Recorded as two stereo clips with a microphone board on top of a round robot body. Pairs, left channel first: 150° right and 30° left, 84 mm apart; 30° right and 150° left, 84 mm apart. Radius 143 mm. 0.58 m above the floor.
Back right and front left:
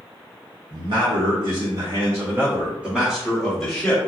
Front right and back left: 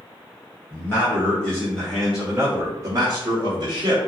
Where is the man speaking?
30° left, 1.4 m; by 4.0 s 140° left, 1.2 m.